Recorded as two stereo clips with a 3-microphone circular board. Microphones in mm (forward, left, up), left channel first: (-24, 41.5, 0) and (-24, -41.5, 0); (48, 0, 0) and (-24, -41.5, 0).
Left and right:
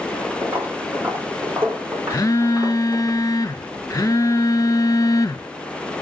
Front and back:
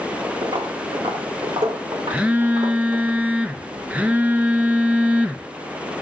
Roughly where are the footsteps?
Behind right.